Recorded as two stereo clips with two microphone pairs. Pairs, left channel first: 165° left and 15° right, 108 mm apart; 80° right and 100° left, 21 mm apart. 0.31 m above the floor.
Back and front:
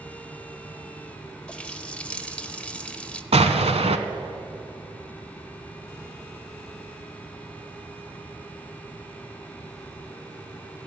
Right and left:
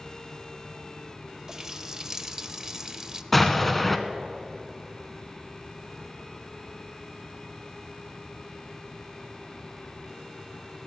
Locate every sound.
1.5 s a running tap: 95° left, 0.6 m
3.3 s an explosion: straight ahead, 0.9 m